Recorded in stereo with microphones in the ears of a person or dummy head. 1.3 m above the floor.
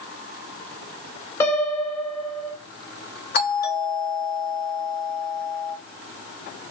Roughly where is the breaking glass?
No breaking glass in this recording.